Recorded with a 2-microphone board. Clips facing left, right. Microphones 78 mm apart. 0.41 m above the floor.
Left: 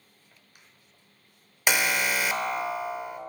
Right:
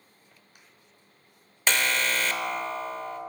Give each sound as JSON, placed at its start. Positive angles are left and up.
{"t": 1.7, "sound": "an alarm", "side_deg": 10, "distance_m": 0.6}